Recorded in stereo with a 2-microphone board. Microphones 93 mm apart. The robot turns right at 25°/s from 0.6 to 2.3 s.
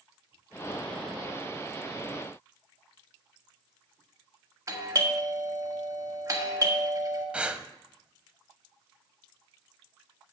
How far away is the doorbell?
About 1.7 m.